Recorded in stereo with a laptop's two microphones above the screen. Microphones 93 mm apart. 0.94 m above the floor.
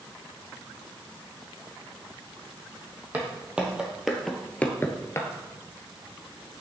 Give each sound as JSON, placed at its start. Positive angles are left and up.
{"t": 3.1, "sound": "footsteps", "side_deg": -15, "distance_m": 2.0}